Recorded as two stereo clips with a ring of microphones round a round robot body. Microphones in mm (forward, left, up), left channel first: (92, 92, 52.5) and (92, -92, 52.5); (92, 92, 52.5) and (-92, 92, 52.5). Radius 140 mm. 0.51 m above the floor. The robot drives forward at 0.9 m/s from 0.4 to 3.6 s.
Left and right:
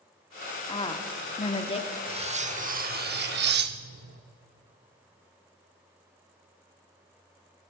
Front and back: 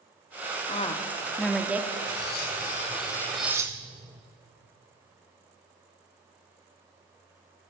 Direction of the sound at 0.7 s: 35° left.